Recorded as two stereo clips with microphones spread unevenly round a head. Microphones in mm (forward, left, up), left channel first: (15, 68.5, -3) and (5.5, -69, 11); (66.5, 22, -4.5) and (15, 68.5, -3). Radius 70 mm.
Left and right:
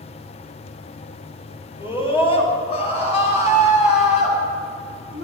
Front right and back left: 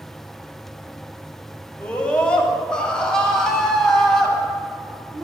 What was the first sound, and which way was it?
A scream, 30° left.